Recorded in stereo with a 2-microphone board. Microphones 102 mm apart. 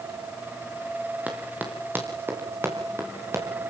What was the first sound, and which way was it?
Running footsteps, 15° right (ahead or behind).